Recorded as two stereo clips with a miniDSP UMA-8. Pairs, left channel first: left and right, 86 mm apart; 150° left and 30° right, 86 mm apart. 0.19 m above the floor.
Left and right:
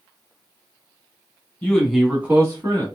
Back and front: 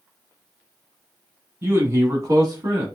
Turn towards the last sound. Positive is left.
turn(degrees=-65)